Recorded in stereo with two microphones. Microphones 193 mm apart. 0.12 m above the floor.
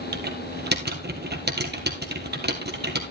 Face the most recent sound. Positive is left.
turn(degrees=-60)  # may be behind; listen again after turning